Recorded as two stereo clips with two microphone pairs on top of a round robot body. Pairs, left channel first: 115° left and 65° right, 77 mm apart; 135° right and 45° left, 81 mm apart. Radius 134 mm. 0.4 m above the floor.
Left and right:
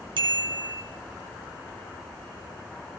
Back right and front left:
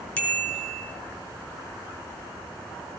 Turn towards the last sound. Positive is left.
turn(degrees=-65)